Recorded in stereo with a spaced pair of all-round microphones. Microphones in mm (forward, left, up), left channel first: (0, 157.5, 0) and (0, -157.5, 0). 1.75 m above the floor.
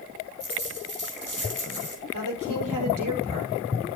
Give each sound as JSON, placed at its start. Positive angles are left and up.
{"t": 0.4, "sound": "a dropped coin", "side_deg": -75, "distance_m": 5.0}
{"t": 2.1, "sound": "a woman speaking", "side_deg": -85, "distance_m": 5.5}